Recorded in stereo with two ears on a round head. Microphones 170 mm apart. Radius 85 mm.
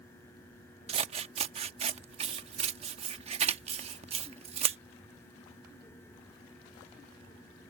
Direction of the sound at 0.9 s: 30° right (ahead or behind).